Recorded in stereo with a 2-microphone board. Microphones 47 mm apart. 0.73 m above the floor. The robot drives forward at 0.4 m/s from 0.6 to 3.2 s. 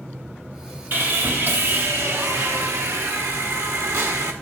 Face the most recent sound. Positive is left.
turn(degrees=-60)  # may be behind; listen again after turning